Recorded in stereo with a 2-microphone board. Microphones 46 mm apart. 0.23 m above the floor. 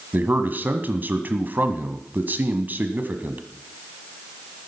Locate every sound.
0.1 s a man speaking: 45° right (ahead or behind), 1.3 m